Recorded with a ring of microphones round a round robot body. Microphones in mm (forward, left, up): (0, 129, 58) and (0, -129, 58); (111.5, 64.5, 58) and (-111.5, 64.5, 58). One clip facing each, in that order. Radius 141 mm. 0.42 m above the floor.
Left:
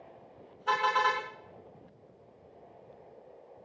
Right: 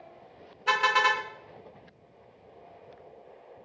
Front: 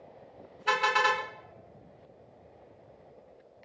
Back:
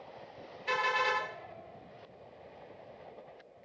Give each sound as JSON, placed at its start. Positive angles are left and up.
{"t": 0.7, "sound": "a car horn", "azimuth_deg": -35, "distance_m": 2.5}